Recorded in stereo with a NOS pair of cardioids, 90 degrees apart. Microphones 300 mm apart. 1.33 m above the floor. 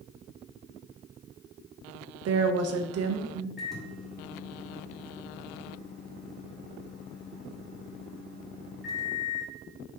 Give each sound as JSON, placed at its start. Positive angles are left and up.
{"t": 2.2, "sound": "a woman speaking", "azimuth_deg": -55, "distance_m": 0.7}
{"t": 3.6, "sound": "a microwave", "azimuth_deg": 0, "distance_m": 1.6}